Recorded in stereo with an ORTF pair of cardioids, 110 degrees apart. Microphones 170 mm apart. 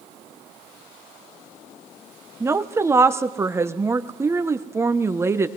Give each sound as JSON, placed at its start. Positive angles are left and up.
{"t": 2.4, "sound": "a woman speaking", "azimuth_deg": -15, "distance_m": 0.7}